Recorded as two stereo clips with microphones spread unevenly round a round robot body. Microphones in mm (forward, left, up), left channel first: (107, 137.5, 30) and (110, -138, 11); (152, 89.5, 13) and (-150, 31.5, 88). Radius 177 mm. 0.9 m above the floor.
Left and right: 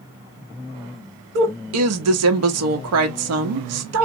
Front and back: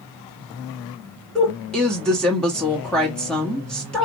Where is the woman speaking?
70° right, 1.2 m.